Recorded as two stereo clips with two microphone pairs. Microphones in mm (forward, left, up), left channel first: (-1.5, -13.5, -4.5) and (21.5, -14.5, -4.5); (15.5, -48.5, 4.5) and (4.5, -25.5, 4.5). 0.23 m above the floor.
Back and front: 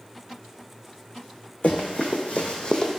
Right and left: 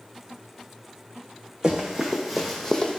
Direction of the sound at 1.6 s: Straight behind.